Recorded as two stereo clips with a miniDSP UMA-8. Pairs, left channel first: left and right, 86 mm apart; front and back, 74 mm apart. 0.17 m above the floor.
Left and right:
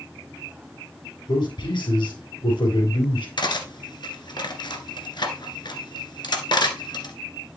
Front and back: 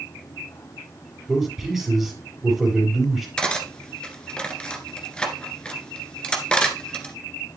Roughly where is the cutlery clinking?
Left.